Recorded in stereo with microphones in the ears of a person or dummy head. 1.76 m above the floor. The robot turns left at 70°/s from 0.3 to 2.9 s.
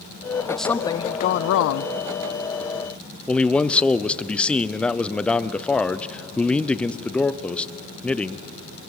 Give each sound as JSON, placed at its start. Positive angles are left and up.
{"t": 0.5, "sound": "a woman speaking", "azimuth_deg": -175, "distance_m": 0.6}
{"t": 3.3, "sound": "a man speaking", "side_deg": 5, "distance_m": 0.7}